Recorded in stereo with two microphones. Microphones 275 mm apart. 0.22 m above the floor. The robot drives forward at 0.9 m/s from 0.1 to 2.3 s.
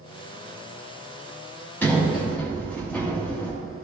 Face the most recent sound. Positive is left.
turn(degrees=5)  # may be behind; listen again after turning